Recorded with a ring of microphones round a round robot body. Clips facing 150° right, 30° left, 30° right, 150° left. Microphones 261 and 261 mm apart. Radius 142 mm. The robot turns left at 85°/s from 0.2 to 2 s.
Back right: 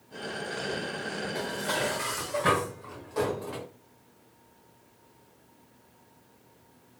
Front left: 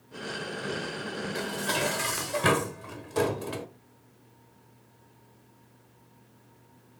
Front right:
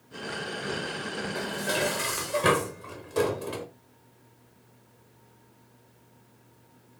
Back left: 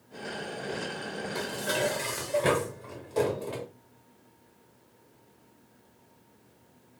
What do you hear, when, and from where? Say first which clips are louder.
1.4 s dishes clattering: front left 1 dB, even; 90° left, 0.9 m; by 3.7 s 35° left, 0.9 m